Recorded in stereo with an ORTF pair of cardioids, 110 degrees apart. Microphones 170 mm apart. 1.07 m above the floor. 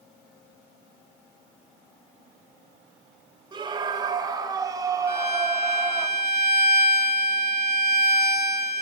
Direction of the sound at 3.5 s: 30° right.